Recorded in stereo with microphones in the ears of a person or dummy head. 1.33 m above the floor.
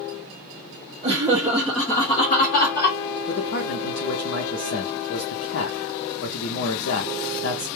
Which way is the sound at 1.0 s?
25° right (ahead or behind).